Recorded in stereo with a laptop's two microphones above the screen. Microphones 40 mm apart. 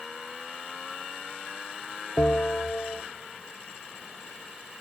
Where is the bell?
60° left (ahead or behind), 0.8 m.